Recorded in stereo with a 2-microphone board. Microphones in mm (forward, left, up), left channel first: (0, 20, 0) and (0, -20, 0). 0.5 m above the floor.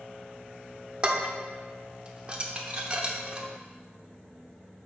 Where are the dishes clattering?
25° right (ahead or behind), 0.7 m.